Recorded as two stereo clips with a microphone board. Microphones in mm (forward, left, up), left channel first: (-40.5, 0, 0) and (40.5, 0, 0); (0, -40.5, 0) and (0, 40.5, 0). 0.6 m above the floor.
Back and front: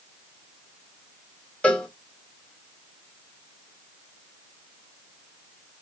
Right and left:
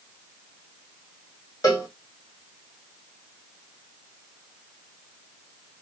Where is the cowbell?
110° right, 1.2 m.